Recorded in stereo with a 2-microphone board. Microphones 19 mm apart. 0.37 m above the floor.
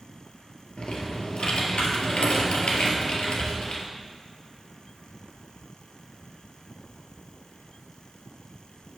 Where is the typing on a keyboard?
80° left, 1.3 m.